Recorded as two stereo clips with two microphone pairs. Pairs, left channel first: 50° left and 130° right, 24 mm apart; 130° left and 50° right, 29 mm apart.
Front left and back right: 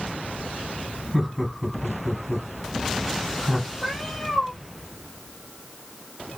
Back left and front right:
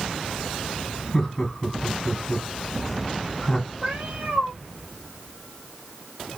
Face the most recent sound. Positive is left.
turn(degrees=-25)